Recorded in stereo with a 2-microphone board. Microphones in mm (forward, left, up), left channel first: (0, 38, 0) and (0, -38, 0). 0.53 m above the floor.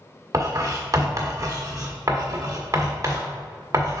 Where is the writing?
40° right (ahead or behind), 1.6 m.